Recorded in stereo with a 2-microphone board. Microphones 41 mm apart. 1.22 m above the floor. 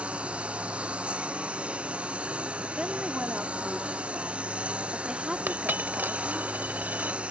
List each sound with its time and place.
0.0 s a lawn mower: 30° right (ahead or behind)
2.8 s a woman speaking: 25° right (ahead or behind)
5.5 s a dropped coin: 50° right (ahead or behind)